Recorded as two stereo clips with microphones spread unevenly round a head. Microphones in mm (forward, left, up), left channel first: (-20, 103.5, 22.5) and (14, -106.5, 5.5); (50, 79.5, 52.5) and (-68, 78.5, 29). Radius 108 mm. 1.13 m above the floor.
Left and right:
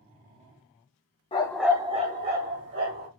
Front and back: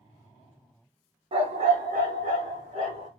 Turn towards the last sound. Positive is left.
turn(degrees=-115)